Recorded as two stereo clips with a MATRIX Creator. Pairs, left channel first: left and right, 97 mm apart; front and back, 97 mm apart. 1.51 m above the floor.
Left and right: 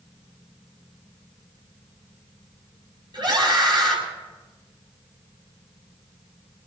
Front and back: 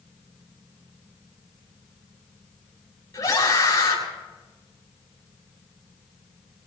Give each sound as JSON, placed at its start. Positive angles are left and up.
{"t": 3.1, "sound": "a scream", "azimuth_deg": -55, "distance_m": 5.5}